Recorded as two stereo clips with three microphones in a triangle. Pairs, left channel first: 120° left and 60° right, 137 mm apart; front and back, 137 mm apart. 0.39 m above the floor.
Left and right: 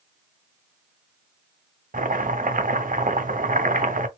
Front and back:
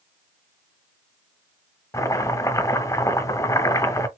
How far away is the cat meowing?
No cat meowing in this recording.